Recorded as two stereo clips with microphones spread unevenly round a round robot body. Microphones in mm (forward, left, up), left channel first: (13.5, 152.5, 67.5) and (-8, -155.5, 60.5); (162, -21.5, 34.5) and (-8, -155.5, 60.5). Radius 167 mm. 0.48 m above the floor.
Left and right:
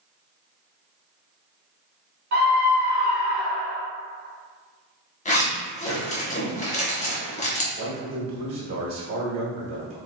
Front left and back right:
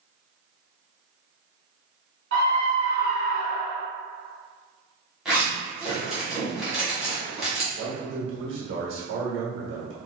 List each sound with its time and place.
2.3 s a scream: 140° right, 1.8 m; by 3.8 s 165° right, 1.3 m
5.2 s a zipper: 120° left, 1.4 m
7.8 s a man speaking: 120° right, 1.5 m